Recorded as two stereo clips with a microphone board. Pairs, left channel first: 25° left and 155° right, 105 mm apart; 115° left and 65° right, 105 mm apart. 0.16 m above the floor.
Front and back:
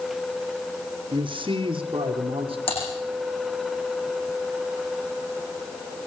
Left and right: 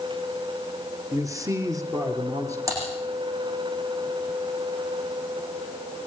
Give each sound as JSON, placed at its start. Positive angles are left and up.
{"t": 1.1, "sound": "a man speaking", "azimuth_deg": -125, "distance_m": 2.0}
{"t": 2.7, "sound": "typing on a keyboard", "azimuth_deg": -5, "distance_m": 10.0}